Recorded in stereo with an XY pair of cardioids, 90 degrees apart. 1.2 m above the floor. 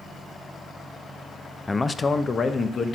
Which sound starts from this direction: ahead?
A man speaking, at 1.7 s.